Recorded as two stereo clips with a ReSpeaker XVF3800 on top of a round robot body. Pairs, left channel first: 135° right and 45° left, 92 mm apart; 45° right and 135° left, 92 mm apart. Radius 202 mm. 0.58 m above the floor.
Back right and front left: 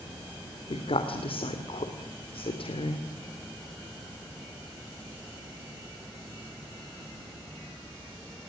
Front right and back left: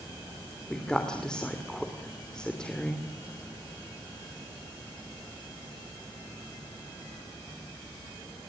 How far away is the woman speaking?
About 2.5 m.